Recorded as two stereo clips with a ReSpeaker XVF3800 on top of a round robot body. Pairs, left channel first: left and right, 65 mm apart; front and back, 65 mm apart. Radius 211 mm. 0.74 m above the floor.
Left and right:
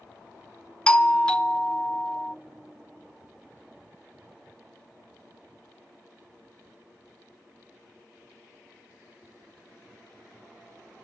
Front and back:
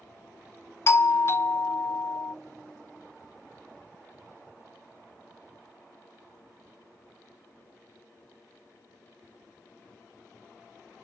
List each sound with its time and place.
0.9 s a doorbell: 20° left, 1.1 m